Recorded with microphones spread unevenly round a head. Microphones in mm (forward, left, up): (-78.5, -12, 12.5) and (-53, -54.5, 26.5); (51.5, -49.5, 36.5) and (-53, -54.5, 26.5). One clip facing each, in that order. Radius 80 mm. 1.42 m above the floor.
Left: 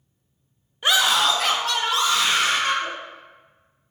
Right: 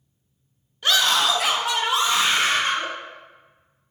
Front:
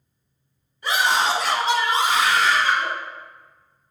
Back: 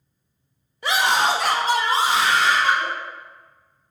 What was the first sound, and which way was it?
A scream, 165° right.